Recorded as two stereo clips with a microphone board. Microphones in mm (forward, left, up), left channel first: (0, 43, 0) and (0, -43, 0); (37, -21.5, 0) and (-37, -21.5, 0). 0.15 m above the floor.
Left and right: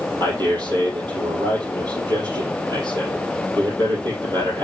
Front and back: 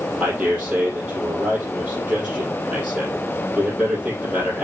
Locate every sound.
0.2 s a man speaking: 110° right, 4 m